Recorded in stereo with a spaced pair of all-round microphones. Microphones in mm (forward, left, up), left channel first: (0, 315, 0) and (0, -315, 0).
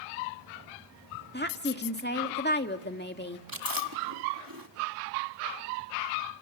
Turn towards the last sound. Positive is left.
turn(degrees=-30)  # may be behind; listen again after turning